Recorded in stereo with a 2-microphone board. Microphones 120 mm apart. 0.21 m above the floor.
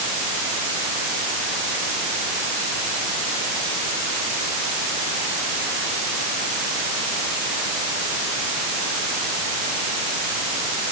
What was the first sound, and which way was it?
Only background noise.